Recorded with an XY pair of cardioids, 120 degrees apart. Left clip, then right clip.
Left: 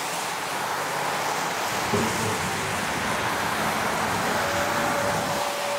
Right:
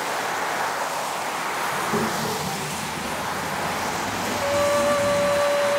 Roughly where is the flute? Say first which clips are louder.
Right 4 dB; ahead right.